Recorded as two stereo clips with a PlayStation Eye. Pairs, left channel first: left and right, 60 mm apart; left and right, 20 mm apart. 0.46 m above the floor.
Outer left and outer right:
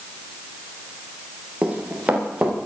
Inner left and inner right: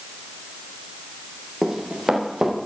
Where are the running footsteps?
20° right (ahead or behind), 7 m.